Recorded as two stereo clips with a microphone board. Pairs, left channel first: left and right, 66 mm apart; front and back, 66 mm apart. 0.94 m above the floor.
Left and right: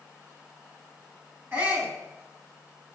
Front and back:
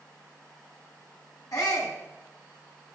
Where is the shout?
30° right, 8.5 m.